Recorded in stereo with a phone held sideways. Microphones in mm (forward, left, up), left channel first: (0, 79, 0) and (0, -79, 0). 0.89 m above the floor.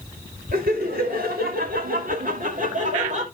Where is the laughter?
70° right (ahead or behind), 2.5 m; by 3.3 s 50° right (ahead or behind), 2.5 m.